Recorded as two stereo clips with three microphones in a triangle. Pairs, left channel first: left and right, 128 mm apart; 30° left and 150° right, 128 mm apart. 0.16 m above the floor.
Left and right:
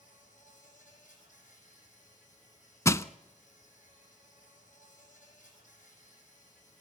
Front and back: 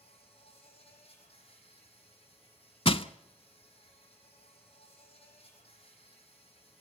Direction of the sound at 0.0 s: 75° left.